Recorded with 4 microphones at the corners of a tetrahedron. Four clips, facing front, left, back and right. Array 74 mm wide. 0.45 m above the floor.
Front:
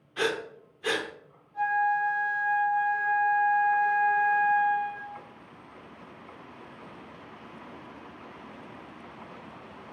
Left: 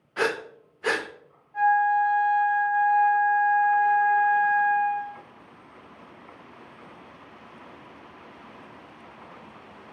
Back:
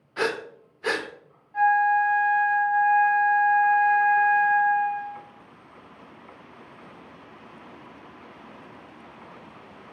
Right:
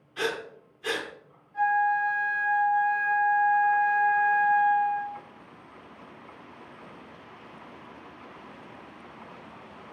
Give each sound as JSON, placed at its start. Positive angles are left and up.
{"t": 0.2, "sound": "breathing", "azimuth_deg": 125, "distance_m": 0.8}
{"t": 1.5, "sound": "a flute", "azimuth_deg": 165, "distance_m": 4.5}